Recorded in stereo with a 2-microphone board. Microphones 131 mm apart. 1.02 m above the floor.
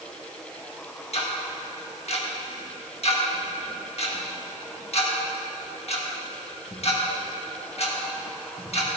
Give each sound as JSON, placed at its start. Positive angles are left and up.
{"t": 1.1, "sound": "ticking", "side_deg": 50, "distance_m": 1.7}